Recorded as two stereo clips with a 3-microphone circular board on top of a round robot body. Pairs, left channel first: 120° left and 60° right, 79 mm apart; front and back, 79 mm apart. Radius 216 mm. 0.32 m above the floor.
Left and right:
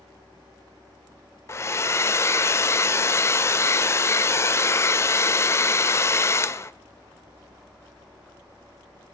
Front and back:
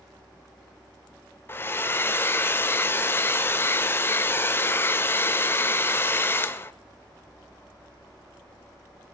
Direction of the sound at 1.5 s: 60° left.